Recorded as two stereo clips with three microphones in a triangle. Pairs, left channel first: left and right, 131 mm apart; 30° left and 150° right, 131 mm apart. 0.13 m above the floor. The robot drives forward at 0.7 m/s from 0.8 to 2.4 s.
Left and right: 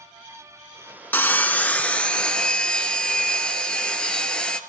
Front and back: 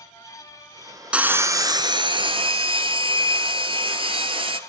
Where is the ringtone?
No ringtone in this recording.